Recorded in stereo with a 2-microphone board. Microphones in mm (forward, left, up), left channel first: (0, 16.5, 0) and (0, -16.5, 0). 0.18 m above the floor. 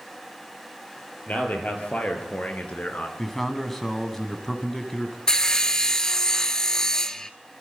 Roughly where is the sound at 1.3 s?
Left.